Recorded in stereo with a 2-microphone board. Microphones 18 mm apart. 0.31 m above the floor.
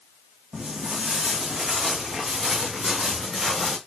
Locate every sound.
0.5 s footsteps: 75° right (ahead or behind), 1.3 m; by 3.8 s 10° right (ahead or behind), 2 m